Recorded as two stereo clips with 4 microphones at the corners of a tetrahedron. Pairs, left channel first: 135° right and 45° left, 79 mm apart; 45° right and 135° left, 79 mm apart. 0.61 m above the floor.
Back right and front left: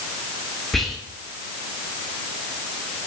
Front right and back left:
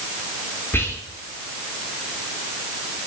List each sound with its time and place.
0.7 s whispering: 50° right, 0.6 m